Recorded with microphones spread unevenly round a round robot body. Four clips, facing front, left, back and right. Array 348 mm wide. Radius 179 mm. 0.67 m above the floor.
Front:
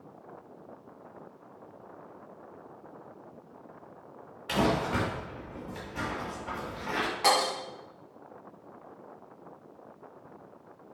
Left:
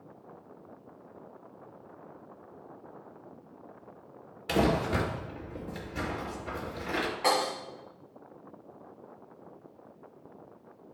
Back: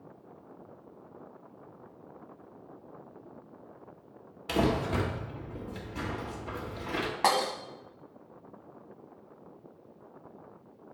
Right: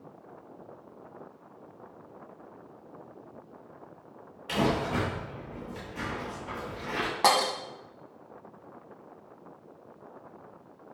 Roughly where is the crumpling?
Behind left.